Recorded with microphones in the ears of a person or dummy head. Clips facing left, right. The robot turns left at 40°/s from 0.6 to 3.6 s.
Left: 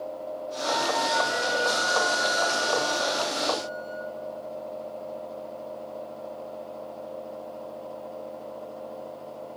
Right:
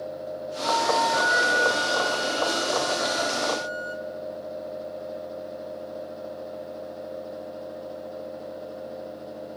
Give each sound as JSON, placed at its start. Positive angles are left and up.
{"t": 0.6, "sound": "a flute", "azimuth_deg": 15, "distance_m": 1.3}